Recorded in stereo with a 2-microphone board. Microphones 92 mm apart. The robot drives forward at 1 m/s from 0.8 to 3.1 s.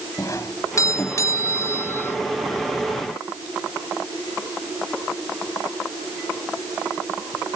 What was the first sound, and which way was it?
A doorbell, 35° left (ahead or behind).